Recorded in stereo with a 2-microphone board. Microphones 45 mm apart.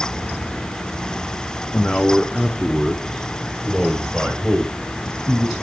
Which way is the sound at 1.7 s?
25° left (ahead or behind).